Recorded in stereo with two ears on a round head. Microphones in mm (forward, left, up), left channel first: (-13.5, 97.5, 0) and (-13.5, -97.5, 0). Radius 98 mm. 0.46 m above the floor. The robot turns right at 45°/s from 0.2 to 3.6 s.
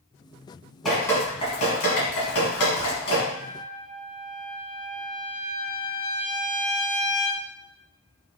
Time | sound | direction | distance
0.8 | dripping | centre (ahead or behind) | 1.6 m
3.3 | a trumpet | 30° right (ahead or behind) | 1.7 m